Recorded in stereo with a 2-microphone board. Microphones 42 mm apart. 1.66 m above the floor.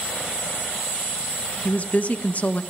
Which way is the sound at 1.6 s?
40° left (ahead or behind).